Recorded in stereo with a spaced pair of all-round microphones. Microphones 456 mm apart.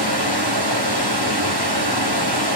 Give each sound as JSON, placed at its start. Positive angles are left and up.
{"t": 0.0, "sound": "running water", "side_deg": -55, "distance_m": 3.5}